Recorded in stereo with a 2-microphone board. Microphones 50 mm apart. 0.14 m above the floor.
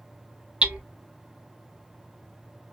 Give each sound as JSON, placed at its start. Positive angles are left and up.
{"t": 0.6, "sound": "hammering", "side_deg": -25, "distance_m": 0.8}